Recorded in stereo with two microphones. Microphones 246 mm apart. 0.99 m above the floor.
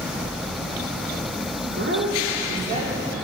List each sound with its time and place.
1.6 s a woman speaking: 60° right (ahead or behind), 2.5 m; by 3.2 s 15° right (ahead or behind), 3 m